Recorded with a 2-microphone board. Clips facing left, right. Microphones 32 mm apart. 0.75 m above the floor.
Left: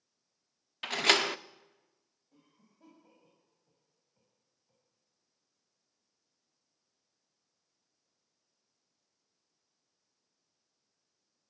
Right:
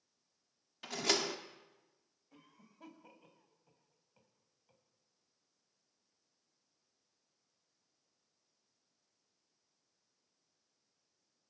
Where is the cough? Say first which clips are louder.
Right 4 dB; 80° right, 6 m.